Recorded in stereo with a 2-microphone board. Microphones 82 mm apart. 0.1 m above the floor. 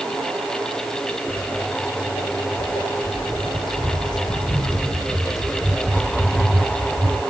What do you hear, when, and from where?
1.3 s footsteps: 80° left, 2.5 m; by 7.2 s 15° left (ahead or behind), 2.5 m